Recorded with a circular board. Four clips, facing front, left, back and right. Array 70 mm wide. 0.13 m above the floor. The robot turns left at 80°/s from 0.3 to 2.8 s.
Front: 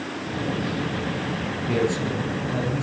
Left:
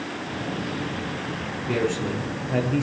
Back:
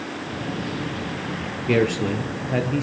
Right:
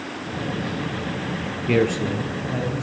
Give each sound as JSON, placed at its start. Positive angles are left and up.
{"t": 1.7, "sound": "a man speaking", "azimuth_deg": -135, "distance_m": 2.0}